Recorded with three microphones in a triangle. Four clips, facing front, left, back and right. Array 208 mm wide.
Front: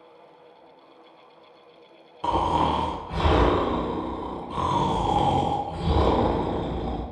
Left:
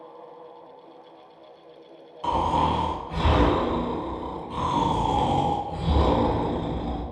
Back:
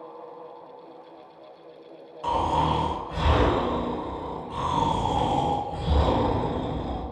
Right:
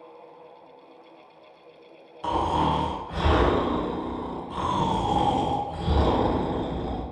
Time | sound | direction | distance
2.2 | snoring | 15° right | 0.8 m